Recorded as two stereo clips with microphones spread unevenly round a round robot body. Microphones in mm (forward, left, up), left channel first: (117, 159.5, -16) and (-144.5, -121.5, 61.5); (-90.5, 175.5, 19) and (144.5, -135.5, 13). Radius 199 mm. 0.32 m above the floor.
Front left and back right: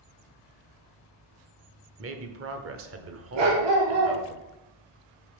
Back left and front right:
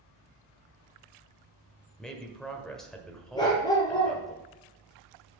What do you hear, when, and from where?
2.0 s a man speaking: 145° right, 1.2 m
3.4 s a dog barking: 155° right, 3 m